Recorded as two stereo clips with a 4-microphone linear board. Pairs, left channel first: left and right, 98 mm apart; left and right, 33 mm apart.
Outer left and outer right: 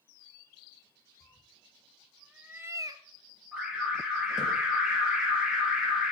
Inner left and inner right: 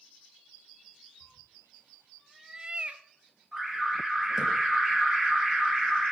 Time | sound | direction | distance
1.2 | a cat meowing | 30° left (ahead or behind) | 1.3 m
3.5 | an alarm | 10° right (ahead or behind) | 4.5 m